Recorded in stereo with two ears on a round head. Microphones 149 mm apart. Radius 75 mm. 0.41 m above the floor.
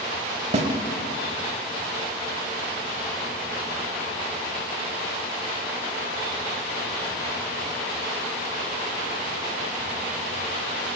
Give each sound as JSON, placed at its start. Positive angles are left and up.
{"t": 0.5, "sound": "a snare drum", "side_deg": -40, "distance_m": 0.5}